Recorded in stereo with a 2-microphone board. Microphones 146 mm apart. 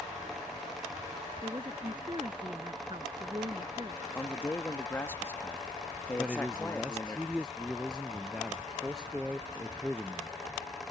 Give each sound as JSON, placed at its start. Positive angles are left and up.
{"t": 1.4, "sound": "a woman speaking", "side_deg": -35}
{"t": 4.2, "sound": "a man speaking", "side_deg": 15}
{"t": 6.2, "sound": "a man speaking", "side_deg": -5}